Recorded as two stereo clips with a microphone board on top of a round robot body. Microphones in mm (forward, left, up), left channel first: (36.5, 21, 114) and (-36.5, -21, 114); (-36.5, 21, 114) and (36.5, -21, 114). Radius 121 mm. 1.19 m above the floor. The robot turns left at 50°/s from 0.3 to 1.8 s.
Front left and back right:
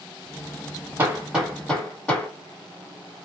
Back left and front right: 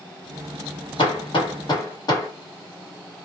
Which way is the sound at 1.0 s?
145° left.